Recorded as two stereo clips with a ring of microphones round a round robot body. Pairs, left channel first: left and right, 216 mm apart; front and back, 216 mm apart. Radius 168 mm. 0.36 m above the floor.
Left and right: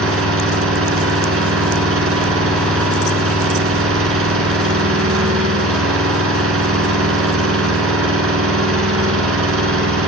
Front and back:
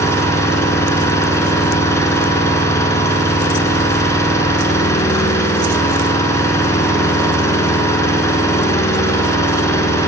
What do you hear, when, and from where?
0.0 s an engine running: 75° right, 3.5 m